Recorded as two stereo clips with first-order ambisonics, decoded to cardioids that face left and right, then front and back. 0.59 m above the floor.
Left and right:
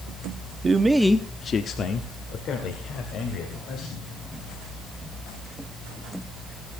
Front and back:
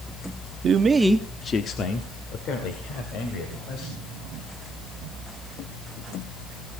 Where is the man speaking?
150° right, 0.8 m; by 4.0 s 40° left, 3.5 m.